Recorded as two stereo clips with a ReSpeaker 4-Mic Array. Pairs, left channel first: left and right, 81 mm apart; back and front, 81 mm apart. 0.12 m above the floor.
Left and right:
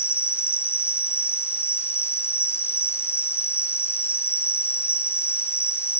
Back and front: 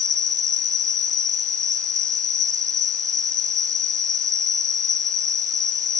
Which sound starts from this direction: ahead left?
An insect, at 0.0 s.